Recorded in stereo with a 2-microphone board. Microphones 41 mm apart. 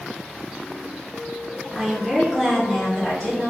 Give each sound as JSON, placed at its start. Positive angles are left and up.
{"t": 1.8, "sound": "a woman speaking", "side_deg": 0, "distance_m": 1.8}